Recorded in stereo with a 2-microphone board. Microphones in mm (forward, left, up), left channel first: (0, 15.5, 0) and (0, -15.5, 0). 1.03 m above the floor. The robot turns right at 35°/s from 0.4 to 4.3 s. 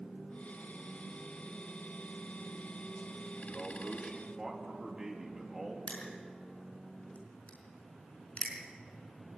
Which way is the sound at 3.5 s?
5° left (ahead or behind).